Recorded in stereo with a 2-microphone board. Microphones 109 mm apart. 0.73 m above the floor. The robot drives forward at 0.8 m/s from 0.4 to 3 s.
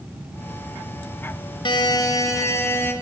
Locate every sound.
1.6 s a buzzer: 50° left (ahead or behind), 0.8 m; by 2.9 s 20° left (ahead or behind), 1.5 m